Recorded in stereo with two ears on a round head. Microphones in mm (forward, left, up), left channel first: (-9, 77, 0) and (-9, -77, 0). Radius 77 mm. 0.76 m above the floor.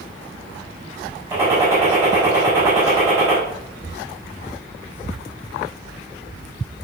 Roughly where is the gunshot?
Centre.